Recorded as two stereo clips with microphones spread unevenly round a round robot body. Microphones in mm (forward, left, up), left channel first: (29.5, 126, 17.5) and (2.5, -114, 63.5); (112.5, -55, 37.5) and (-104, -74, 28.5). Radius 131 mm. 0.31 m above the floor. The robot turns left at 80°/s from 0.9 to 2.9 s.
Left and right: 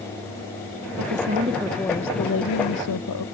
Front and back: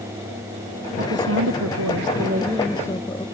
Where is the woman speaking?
125° right; by 3.2 s 80° left.